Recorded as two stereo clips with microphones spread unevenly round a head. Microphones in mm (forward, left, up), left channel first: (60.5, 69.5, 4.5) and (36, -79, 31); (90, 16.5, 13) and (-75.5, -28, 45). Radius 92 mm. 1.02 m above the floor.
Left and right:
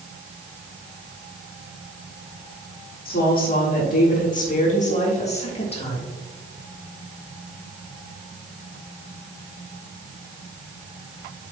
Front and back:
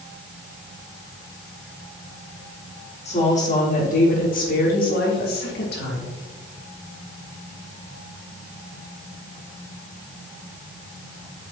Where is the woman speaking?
65° left, 3.5 m; by 6.1 s 30° left, 3 m.